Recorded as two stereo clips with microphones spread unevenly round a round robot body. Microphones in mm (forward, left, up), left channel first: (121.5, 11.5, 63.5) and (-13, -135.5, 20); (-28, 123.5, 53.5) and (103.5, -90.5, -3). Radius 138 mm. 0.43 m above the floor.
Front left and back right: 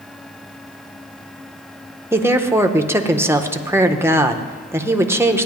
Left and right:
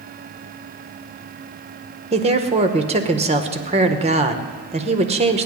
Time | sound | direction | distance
2.1 | a woman speaking | 80° right | 1.0 m